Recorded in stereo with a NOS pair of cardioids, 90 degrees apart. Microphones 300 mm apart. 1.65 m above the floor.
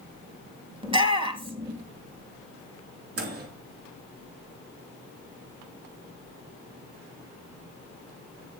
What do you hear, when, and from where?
0.8 s a shout: 15° right, 2.5 m
3.2 s a microwave: 50° right, 3 m